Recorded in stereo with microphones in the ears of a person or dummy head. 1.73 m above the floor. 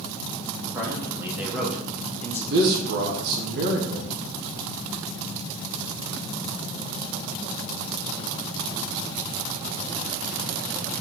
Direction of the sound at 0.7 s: 20° right (ahead or behind).